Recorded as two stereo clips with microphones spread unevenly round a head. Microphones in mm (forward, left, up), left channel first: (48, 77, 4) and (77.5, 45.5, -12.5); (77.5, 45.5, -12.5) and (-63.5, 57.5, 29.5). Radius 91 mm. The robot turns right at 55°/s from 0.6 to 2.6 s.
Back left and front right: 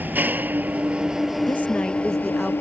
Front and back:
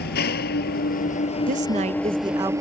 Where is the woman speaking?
160° right; by 2.5 s 105° right.